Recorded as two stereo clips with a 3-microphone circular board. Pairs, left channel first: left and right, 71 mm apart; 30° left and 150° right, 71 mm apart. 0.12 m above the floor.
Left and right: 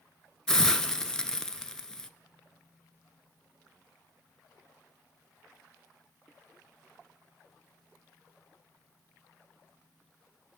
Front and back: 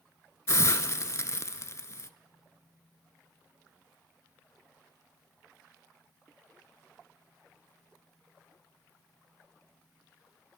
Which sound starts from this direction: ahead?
A hiss, at 0.5 s.